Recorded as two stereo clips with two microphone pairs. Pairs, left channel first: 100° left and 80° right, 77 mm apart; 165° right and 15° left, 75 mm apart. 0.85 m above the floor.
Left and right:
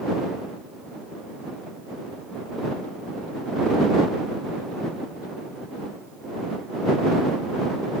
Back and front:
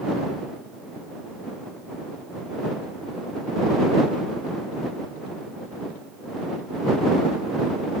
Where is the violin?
I don't hear a violin.